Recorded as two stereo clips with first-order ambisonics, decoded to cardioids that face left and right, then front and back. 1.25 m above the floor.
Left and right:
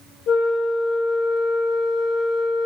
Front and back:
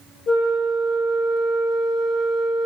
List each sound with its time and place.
0.3 s a flute: 55° left, 2.0 m